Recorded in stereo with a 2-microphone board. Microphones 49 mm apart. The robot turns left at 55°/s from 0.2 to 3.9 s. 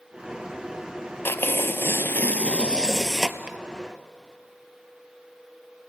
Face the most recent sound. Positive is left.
turn(degrees=-40)